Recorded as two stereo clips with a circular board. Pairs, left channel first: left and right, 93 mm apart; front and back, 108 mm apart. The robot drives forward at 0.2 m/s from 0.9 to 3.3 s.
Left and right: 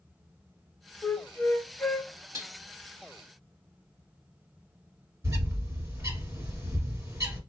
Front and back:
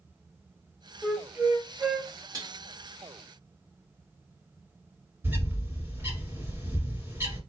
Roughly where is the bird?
Behind right.